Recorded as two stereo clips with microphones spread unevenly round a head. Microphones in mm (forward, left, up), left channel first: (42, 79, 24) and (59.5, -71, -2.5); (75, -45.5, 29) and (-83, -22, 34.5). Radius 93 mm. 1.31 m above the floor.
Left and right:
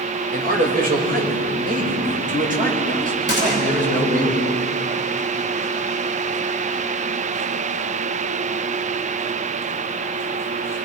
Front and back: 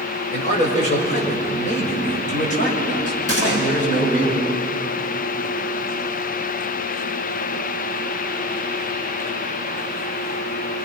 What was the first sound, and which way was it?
A man speaking, 55° right.